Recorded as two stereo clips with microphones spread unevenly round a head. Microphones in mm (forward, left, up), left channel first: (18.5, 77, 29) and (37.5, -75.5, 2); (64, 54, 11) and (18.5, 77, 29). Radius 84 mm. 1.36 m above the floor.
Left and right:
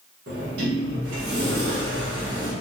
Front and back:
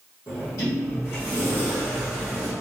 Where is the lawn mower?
No lawn mower in this recording.